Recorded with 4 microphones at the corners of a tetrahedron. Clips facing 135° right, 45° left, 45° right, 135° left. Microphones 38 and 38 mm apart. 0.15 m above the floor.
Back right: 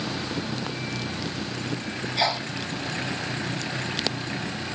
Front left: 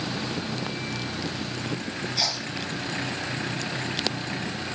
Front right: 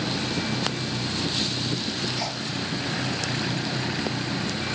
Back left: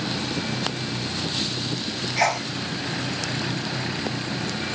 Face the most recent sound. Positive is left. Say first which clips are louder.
# back right 8 dB, back left 8 dB
turn(degrees=160)